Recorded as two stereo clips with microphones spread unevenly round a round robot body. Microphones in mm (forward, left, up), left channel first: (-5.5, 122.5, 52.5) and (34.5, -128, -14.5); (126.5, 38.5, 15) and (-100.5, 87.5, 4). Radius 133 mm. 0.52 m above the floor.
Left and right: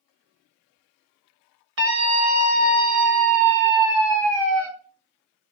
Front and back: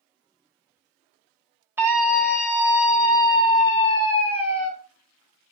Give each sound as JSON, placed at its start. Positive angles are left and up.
{"t": 1.8, "sound": "a scream", "azimuth_deg": -110, "distance_m": 2.0}